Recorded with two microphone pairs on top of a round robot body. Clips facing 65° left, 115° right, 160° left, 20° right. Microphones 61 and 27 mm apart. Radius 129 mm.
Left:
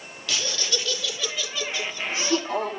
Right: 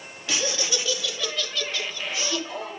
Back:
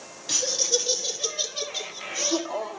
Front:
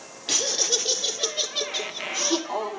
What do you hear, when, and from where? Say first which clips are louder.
0.3 s laughter: right 2 dB, front 1 dB; 50° right, 2.0 m; by 2.8 s 25° left, 1.7 m